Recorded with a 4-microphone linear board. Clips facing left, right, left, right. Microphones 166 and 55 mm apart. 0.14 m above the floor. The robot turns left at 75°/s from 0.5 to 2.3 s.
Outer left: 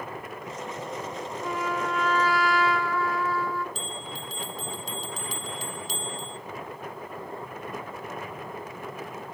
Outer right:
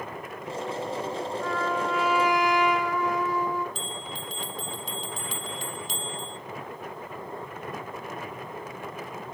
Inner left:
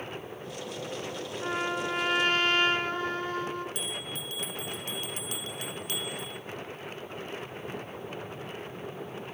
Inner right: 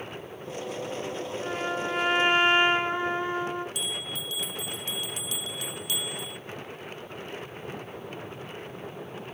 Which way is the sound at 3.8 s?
40° left (ahead or behind).